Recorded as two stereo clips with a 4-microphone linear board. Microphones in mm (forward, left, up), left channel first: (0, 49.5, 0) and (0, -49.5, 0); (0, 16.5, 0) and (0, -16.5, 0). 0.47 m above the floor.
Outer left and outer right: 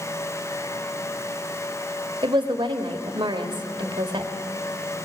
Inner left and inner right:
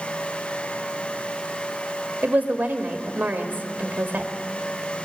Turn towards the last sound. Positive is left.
turn(degrees=-60)  # may be behind; listen again after turning